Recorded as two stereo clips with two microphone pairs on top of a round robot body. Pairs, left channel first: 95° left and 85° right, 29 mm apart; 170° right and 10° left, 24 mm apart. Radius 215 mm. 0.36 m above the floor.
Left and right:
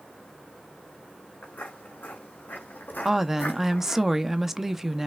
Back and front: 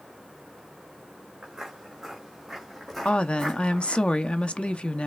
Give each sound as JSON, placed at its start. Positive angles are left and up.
{"t": 1.4, "sound": "footsteps", "azimuth_deg": 75, "distance_m": 2.5}
{"t": 3.0, "sound": "a woman speaking", "azimuth_deg": -170, "distance_m": 0.9}